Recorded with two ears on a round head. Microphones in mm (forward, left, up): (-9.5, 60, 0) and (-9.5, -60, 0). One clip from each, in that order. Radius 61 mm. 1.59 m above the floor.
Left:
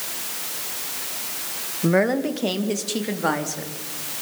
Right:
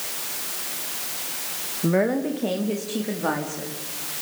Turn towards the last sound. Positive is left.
turn(degrees=80)